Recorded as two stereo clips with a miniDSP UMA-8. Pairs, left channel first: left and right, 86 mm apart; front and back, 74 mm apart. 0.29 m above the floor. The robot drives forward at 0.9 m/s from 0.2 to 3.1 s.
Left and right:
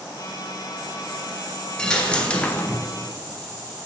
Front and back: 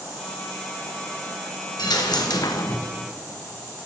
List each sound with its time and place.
1.8 s a dropped coin: 10° left, 1.4 m; by 2.9 s 35° left, 0.5 m